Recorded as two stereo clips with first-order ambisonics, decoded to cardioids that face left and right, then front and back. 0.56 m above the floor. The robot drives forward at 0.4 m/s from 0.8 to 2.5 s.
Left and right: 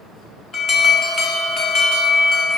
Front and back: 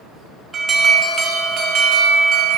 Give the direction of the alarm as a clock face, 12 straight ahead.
8 o'clock.